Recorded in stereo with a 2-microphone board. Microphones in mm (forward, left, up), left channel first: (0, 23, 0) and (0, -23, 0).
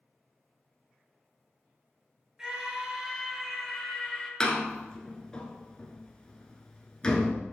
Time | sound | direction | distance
2.4 | a scream | 15° right (ahead or behind) | 1.5 m
4.4 | a door slam | 20° left (ahead or behind) | 0.9 m